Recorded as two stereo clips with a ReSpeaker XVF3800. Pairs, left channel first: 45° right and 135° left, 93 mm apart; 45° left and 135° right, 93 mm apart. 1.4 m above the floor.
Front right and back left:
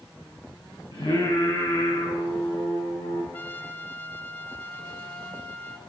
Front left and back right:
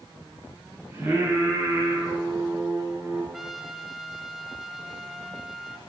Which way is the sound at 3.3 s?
55° right.